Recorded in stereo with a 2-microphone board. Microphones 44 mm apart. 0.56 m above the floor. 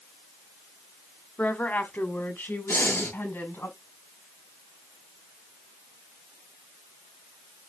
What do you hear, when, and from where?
1.4 s a woman speaking: 35° left (ahead or behind), 1.6 m; by 3.7 s 65° left (ahead or behind), 4.5 m
2.7 s breathing: 80° left, 5.5 m